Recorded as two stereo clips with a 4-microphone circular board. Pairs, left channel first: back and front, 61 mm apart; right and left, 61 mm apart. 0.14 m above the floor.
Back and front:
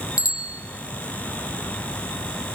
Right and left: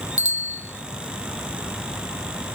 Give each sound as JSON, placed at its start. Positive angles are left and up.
{"t": 0.2, "sound": "a bicycle bell", "azimuth_deg": 160, "distance_m": 3.0}